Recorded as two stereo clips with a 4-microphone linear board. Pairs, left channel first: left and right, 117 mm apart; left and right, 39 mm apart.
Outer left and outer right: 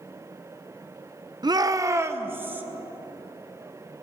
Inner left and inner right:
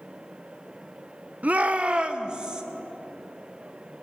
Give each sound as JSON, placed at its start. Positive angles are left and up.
{"t": 1.4, "sound": "a shout", "side_deg": -40, "distance_m": 0.8}